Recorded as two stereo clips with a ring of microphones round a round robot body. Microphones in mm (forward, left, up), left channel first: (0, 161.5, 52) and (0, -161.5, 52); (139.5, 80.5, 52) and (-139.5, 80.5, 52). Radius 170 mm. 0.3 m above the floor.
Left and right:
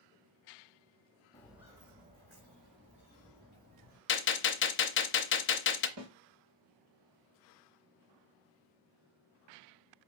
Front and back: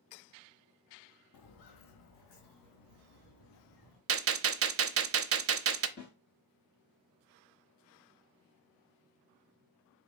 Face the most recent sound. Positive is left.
turn(degrees=-60)